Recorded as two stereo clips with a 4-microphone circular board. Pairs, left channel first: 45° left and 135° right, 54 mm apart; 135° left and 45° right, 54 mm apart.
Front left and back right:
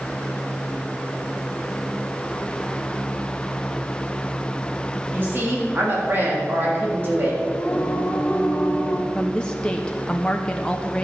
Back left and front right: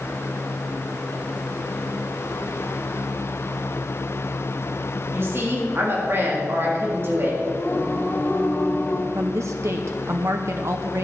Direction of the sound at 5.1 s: 85° right.